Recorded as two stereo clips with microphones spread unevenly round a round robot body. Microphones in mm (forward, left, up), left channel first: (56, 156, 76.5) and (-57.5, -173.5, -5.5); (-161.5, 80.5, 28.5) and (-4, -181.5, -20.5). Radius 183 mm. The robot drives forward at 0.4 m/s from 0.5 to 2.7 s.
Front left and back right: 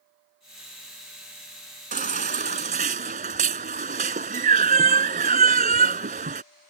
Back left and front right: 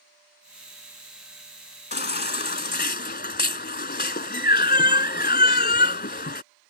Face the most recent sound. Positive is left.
turn(degrees=180)